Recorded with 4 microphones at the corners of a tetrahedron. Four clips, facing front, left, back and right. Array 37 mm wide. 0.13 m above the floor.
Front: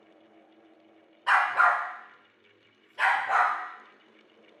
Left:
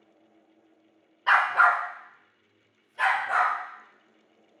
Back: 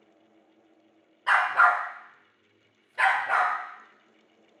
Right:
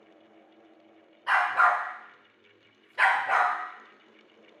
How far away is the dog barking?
About 0.6 m.